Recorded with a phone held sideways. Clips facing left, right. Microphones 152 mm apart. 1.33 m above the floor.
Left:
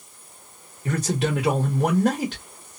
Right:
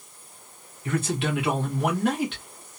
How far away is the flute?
I don't hear a flute.